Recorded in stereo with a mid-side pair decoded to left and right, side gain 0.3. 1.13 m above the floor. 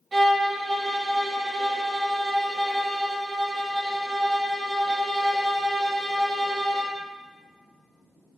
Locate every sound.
0.1 s a violin: 60° right, 0.8 m